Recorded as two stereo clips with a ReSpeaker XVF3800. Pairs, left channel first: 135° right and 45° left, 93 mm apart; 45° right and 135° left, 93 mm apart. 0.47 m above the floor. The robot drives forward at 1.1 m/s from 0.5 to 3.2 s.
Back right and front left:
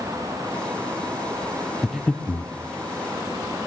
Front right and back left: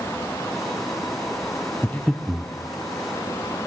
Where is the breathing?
30° right, 0.8 m; by 2.5 s 160° right, 0.9 m.